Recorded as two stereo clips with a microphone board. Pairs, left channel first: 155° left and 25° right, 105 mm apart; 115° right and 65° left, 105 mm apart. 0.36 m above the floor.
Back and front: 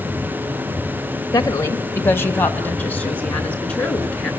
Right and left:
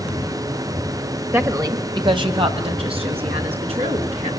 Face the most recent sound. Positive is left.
turn(degrees=75)